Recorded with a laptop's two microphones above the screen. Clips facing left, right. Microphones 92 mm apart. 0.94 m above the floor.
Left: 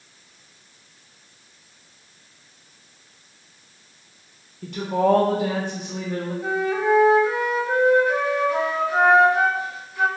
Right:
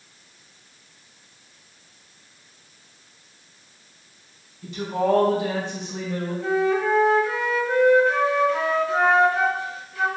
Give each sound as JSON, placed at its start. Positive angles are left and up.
{"t": 4.6, "sound": "a woman speaking", "side_deg": 65, "distance_m": 0.7}
{"t": 6.4, "sound": "a flute", "side_deg": 15, "distance_m": 0.8}